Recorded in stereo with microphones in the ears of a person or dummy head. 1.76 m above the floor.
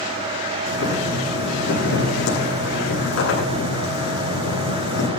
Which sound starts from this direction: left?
Boiling, at 0.7 s.